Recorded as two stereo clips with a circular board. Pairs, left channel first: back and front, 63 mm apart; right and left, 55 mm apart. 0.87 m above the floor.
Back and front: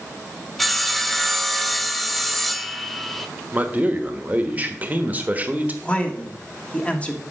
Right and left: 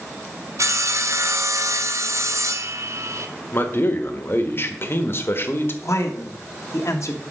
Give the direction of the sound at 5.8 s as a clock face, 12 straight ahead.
4 o'clock.